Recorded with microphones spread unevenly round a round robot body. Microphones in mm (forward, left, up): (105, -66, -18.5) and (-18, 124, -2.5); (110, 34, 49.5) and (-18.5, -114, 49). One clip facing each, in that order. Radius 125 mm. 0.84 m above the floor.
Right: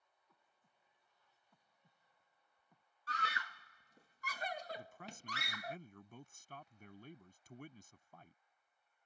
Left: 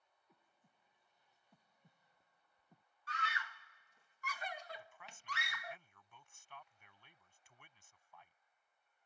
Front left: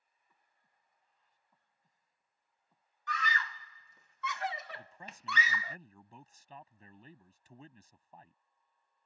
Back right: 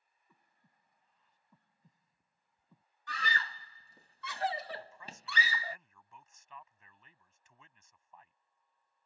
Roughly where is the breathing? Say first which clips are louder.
Left 4 dB, back right 7 dB; behind.